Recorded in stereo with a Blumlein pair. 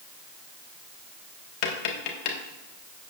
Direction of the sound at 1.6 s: 45° left.